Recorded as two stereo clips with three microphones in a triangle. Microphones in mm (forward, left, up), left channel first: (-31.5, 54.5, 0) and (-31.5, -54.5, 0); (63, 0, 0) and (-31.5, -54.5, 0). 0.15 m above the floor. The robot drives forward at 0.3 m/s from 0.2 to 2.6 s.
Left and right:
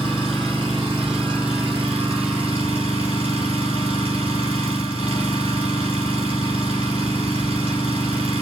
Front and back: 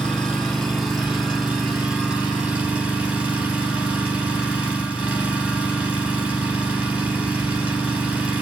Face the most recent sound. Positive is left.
turn(degrees=-70)